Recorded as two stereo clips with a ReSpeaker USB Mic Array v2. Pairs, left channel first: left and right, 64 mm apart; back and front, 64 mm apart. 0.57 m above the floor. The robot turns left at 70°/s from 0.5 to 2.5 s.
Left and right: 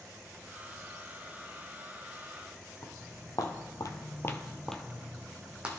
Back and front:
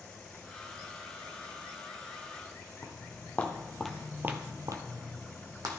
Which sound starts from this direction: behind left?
Footsteps, at 2.8 s.